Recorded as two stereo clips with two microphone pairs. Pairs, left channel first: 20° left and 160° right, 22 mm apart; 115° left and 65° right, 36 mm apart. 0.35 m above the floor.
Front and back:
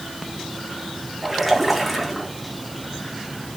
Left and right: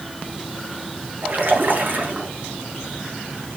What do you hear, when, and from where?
1.2 s a splash: 80° right, 3 m